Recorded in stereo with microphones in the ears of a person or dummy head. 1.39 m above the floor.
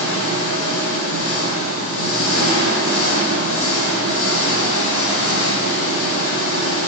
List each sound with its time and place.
0.0 s an engine running: 75° left (ahead or behind), 5 m